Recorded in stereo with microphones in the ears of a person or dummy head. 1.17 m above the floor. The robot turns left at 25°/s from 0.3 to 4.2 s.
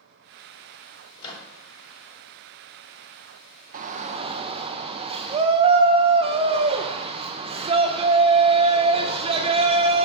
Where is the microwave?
35° left (ahead or behind), 1.0 m; by 1.5 s 25° left (ahead or behind), 1.0 m.